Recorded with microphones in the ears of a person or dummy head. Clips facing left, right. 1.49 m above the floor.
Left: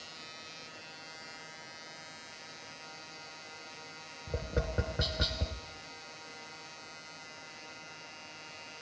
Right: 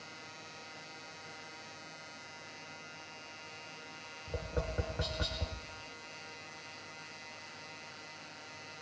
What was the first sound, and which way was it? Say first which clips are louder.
Tapping: left 3 dB; 25° left (ahead or behind).